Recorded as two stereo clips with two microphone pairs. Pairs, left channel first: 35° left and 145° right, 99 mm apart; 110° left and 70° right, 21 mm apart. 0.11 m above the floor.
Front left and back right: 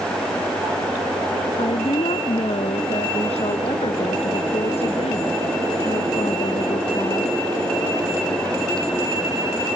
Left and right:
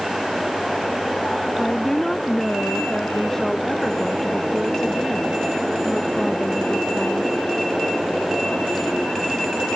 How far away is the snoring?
No snoring in this recording.